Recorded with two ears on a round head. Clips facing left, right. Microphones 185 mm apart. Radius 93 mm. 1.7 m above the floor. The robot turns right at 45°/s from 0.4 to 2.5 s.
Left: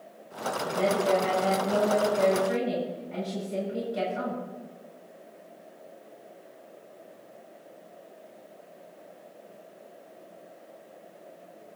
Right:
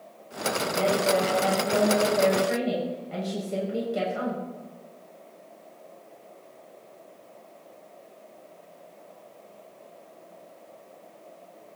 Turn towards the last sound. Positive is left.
turn(degrees=-115)